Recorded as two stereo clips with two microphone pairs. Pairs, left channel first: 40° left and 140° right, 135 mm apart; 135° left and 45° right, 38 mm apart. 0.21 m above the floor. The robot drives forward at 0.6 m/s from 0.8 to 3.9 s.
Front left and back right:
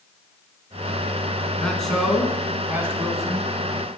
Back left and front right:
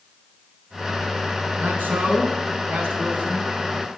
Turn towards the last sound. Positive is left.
turn(degrees=-100)